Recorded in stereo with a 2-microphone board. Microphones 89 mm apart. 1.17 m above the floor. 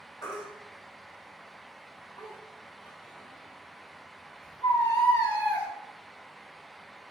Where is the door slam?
I don't hear a door slam.